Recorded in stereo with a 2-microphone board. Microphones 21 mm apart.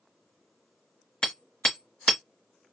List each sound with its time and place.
1.2 s hammering: 50° left (ahead or behind), 1.6 m